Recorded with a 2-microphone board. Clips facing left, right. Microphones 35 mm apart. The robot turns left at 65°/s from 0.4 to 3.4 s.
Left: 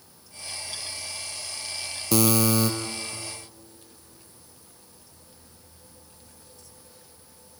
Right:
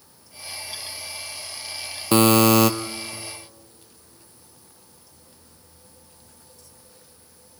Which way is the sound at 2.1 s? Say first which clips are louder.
Right 7 dB; 40° right.